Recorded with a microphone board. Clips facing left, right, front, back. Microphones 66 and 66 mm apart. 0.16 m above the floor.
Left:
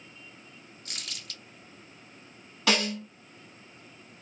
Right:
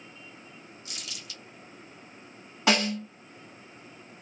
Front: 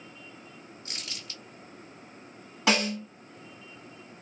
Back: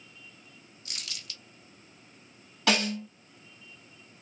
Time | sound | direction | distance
0.8 | crumpling | 55° left | 1.0 m
2.7 | a snare drum | 50° right | 1.9 m